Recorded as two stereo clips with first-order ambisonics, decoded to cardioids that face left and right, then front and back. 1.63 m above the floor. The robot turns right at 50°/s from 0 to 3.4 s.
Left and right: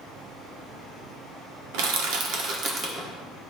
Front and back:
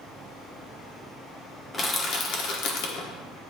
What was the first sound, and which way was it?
Crushing, 80° right.